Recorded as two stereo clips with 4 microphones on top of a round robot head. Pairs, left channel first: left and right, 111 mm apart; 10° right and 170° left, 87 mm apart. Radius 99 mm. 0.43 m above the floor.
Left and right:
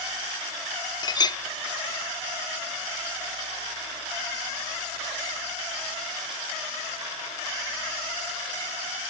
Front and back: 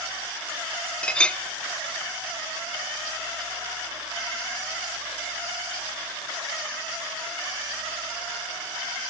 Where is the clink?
60° left, 1.0 m.